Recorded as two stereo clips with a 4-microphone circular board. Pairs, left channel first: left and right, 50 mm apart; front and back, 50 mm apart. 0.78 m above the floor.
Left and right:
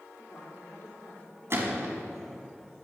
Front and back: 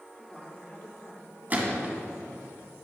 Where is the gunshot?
125° right, 2.5 m.